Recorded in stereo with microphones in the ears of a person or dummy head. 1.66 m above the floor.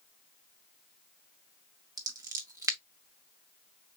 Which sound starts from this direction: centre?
Scissors, at 2.0 s.